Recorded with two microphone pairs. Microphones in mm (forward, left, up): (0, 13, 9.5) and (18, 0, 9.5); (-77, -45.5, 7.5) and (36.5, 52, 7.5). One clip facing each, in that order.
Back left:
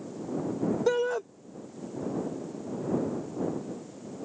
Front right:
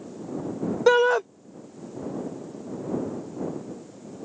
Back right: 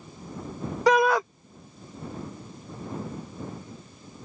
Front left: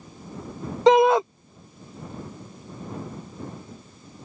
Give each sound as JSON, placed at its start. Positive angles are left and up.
{"t": 0.9, "sound": "a shout", "azimuth_deg": -20}